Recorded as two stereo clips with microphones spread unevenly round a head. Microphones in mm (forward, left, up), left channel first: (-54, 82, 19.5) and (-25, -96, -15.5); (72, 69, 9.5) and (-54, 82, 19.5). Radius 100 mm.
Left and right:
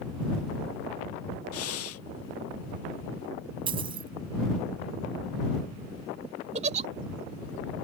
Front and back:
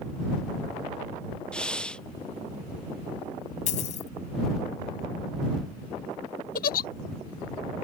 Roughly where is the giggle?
Ahead.